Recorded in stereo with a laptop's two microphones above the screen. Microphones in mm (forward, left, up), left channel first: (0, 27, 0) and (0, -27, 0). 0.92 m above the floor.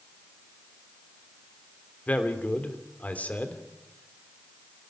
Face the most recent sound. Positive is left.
turn(degrees=25)  # may be behind; listen again after turning